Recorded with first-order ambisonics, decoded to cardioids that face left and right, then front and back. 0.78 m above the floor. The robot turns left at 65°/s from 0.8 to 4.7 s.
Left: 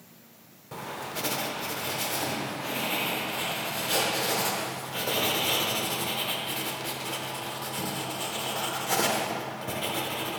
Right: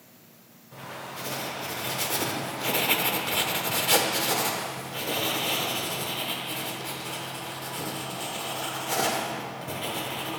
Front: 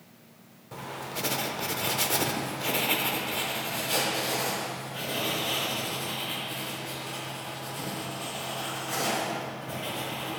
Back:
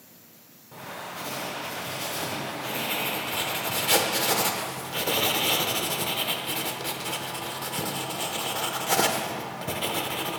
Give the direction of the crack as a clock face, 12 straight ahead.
No crack in this recording.